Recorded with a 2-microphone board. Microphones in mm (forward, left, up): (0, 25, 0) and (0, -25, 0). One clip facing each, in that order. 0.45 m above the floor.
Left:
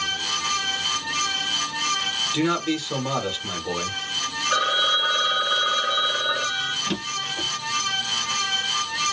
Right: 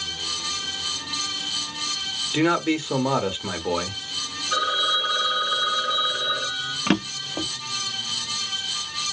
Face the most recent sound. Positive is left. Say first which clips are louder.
# right 3 dB
turn(degrees=-55)  # may be behind; listen again after turning